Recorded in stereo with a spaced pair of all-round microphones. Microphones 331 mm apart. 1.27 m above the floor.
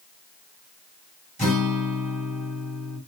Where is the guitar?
20° left (ahead or behind), 2 m.